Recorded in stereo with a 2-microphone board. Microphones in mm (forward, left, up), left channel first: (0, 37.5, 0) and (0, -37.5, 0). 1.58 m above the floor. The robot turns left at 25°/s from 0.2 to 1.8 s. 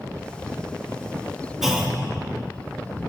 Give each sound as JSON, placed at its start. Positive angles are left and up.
{"t": 1.6, "sound": "a clunk", "side_deg": -5, "distance_m": 1.3}